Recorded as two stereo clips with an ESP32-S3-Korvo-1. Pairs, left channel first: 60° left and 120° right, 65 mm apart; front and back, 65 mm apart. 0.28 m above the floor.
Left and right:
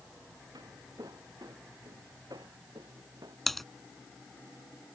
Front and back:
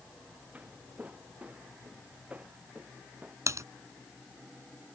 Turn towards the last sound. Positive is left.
turn(degrees=145)